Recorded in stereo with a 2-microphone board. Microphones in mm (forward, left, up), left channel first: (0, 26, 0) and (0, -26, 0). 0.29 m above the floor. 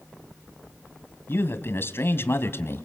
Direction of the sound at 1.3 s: 50° left (ahead or behind).